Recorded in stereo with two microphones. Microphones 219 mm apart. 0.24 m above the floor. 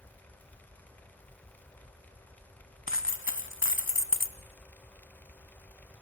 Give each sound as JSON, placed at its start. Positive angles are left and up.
{"t": 2.9, "sound": "a dropped coin", "side_deg": 60, "distance_m": 0.7}